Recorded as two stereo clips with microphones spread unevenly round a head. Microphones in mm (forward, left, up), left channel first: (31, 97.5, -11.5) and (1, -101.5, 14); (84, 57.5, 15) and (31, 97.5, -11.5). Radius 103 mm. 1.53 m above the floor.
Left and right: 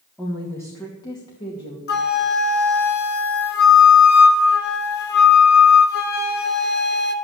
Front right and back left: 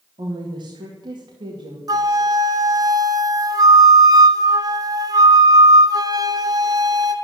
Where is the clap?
No clap in this recording.